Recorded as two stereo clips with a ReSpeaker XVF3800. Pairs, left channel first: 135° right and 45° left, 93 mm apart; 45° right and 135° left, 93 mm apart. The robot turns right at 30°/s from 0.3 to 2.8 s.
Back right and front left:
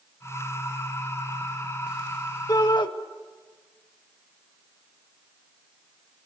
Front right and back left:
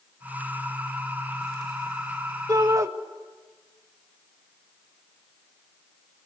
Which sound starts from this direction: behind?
A shout, at 2.5 s.